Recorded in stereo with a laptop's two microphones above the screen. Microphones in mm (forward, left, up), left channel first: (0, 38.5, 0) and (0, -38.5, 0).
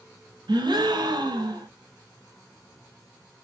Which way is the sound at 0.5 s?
75° right (ahead or behind).